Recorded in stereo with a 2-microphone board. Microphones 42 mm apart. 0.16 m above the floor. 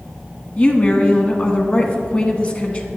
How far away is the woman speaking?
About 1.2 m.